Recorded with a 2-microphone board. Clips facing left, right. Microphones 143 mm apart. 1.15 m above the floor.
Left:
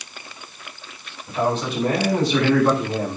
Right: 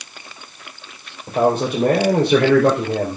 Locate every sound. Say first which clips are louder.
1.3 s a man speaking: right 5 dB; 50° right (ahead or behind), 4.5 m; by 3.2 s 75° right (ahead or behind), 4.5 m